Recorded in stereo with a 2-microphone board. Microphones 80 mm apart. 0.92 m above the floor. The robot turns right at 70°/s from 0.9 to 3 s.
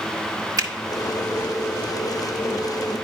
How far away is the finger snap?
About 1.3 m.